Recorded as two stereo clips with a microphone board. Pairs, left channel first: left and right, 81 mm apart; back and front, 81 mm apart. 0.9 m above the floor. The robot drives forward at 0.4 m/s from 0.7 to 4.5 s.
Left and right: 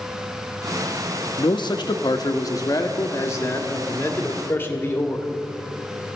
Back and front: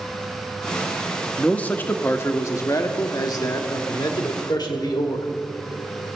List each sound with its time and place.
1.4 s a man speaking: 100° left, 0.8 m; by 5.3 s 150° left, 1.6 m